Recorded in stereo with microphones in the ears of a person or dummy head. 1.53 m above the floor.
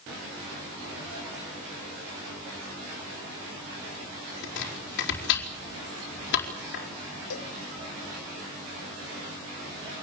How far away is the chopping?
About 4.5 m.